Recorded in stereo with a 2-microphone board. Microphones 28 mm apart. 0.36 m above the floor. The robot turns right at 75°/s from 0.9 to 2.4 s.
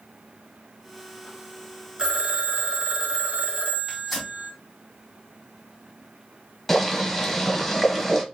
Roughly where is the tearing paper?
Centre.